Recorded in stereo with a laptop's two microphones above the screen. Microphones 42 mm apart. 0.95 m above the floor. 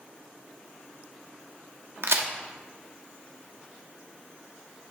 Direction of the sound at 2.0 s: 75° right (ahead or behind).